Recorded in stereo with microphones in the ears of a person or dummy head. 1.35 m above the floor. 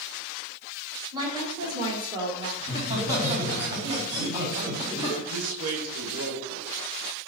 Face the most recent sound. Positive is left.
turn(degrees=-75)  # may be behind; listen again after turning